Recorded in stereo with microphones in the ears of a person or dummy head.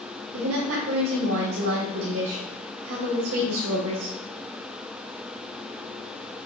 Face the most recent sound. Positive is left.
turn(degrees=-75)  # may be behind; listen again after turning